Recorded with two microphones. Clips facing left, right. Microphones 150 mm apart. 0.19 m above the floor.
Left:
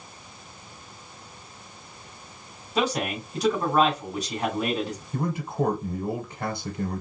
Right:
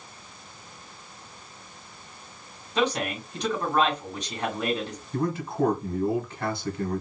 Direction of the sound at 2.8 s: 10° left (ahead or behind).